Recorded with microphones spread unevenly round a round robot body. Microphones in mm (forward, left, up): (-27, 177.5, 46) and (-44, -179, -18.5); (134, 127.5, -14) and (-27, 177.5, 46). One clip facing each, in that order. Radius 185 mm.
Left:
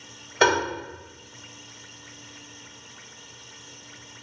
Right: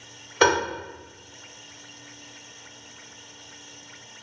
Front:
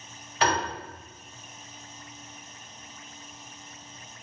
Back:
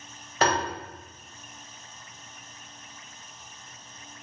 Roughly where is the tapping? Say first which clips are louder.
Right 1 dB, back 1 dB; behind right.